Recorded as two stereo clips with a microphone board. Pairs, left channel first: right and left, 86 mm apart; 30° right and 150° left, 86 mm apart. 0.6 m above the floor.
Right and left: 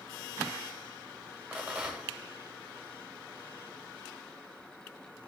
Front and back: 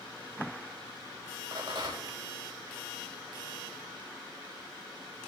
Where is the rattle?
165° left, 2 m.